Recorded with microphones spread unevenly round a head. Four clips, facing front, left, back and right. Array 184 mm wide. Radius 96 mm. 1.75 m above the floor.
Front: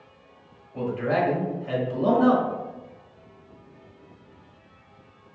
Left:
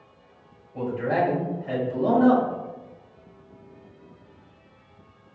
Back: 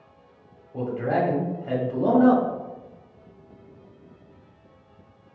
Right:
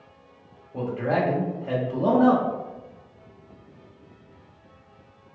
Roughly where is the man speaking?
Behind right.